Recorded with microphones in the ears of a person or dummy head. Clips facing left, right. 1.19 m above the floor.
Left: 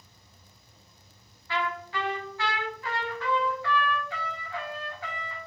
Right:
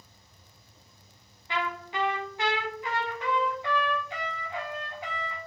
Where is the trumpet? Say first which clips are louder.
Left 1 dB; 15° right (ahead or behind), 0.5 m.